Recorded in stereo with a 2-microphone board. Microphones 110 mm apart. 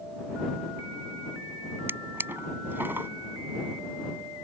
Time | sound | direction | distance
1.9 | a drawer | 15° right (ahead or behind) | ?